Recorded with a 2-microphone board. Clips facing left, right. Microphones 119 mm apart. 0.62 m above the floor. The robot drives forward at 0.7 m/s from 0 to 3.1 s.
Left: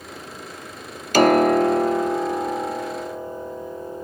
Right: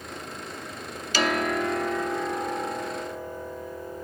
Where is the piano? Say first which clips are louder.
Left 11 dB; 50° left (ahead or behind); by 4.0 s 20° left (ahead or behind).